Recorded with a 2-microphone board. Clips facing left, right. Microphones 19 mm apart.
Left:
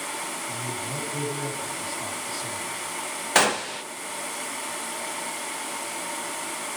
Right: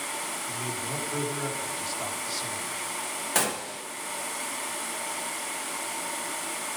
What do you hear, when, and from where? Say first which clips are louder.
0.5 s a man speaking: left 1 dB; 60° right (ahead or behind), 3.5 m
3.4 s a gunshot: left 8 dB; 30° left (ahead or behind), 0.8 m